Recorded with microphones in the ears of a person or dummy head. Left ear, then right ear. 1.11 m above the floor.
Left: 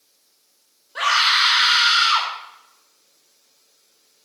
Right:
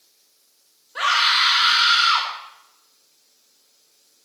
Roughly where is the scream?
Centre.